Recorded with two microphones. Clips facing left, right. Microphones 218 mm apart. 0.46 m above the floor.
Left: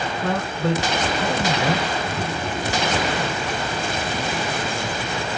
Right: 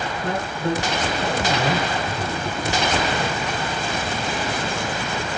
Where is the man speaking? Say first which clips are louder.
Left 2 dB; 65° left (ahead or behind), 2.5 m.